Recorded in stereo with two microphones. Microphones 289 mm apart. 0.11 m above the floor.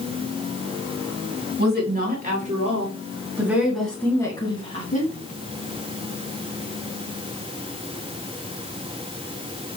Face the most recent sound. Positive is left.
turn(degrees=30)  # may be behind; listen again after turning